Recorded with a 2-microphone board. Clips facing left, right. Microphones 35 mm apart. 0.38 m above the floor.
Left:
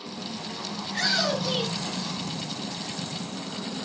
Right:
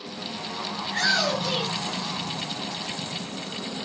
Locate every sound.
0.8 s a shout: 35° right (ahead or behind), 5.5 m; by 2.1 s 25° right (ahead or behind), 7 m